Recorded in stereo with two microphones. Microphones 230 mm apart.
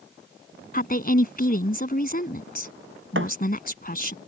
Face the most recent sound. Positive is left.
turn(degrees=-60)  # may be behind; listen again after turning